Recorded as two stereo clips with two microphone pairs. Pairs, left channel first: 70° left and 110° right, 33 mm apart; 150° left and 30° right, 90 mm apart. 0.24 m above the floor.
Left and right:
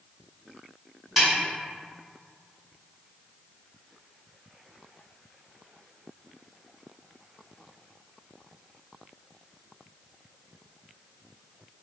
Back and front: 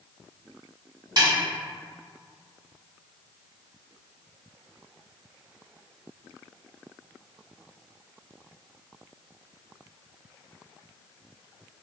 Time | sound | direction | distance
1.2 | a snare drum | 20° right | 1.8 m